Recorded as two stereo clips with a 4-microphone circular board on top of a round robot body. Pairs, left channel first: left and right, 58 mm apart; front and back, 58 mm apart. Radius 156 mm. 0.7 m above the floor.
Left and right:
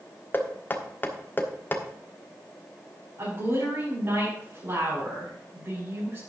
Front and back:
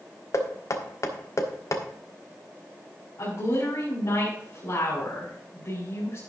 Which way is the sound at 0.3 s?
30° left.